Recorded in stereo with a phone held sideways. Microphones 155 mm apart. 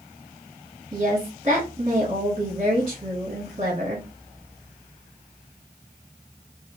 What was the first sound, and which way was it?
A woman speaking, 40° right (ahead or behind).